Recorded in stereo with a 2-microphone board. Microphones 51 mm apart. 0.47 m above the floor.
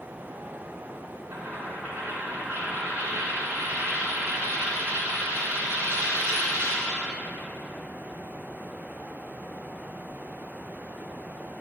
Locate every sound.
1.3 s a dropped coin: 45° right (ahead or behind), 1.8 m